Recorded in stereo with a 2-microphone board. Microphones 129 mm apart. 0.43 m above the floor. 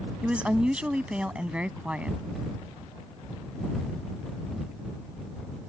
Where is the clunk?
No clunk in this recording.